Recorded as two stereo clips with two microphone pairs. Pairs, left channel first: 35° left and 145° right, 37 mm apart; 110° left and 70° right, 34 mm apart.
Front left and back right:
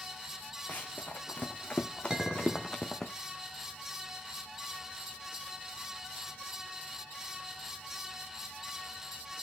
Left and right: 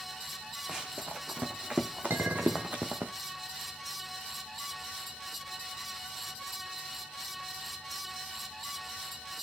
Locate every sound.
0.7 s running footsteps: straight ahead, 1.7 m; by 3.1 s 45° right, 1.7 m
2.1 s a clink: 70° right, 2.5 m